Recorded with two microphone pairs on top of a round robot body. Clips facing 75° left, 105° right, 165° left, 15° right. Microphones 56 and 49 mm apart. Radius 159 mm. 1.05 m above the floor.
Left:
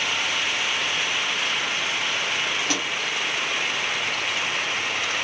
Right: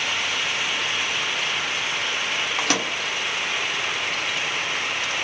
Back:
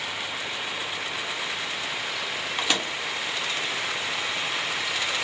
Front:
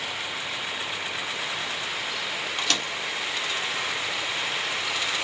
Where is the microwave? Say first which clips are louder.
Right 2 dB, back 2 dB; 115° right, 0.7 m.